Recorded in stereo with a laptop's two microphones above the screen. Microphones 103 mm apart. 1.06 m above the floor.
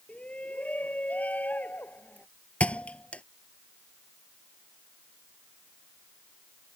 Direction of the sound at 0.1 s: 15° left (ahead or behind).